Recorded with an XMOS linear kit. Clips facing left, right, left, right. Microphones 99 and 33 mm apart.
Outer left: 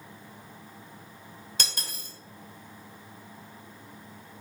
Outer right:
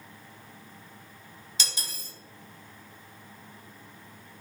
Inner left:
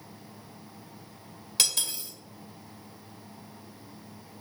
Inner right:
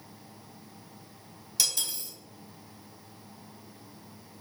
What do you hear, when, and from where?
1.6 s cutlery clinking: 50° left (ahead or behind), 1.0 m